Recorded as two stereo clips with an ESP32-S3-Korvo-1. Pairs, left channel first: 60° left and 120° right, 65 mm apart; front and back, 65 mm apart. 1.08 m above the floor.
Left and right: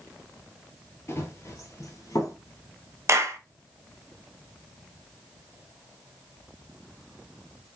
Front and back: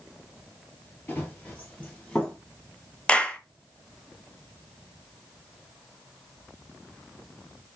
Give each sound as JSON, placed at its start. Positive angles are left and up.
{"t": 1.1, "sound": "running footsteps", "azimuth_deg": 40, "distance_m": 1.3}
{"t": 3.1, "sound": "a clap", "azimuth_deg": -75, "distance_m": 0.6}